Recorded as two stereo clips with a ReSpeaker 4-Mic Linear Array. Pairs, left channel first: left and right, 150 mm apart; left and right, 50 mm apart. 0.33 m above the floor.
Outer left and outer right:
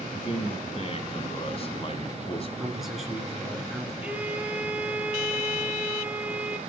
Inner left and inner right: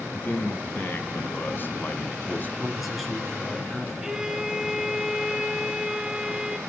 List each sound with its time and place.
0.1 s a man speaking: 40° left (ahead or behind), 1.9 m
2.6 s a man speaking: centre (ahead or behind), 4 m
4.0 s a violin: 10° right (ahead or behind), 2 m